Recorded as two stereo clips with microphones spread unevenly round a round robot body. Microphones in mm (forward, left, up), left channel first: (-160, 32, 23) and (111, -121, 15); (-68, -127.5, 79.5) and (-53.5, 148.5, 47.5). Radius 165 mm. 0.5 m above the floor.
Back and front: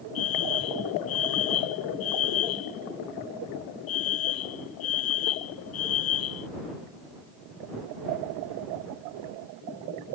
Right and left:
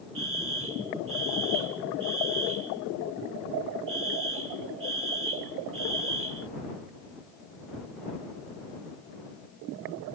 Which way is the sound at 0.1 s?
125° left.